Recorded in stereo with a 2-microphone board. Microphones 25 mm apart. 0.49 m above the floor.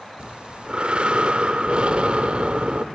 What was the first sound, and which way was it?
Breathing, 50° right (ahead or behind).